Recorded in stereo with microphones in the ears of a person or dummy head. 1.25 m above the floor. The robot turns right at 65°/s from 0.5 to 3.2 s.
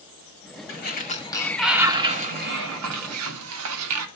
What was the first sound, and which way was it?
A sliding door, 115° left.